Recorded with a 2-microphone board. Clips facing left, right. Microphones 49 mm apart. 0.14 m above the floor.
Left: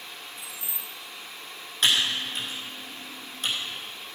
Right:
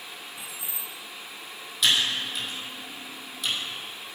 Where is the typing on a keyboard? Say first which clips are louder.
Even; 40° left (ahead or behind), 5.5 m.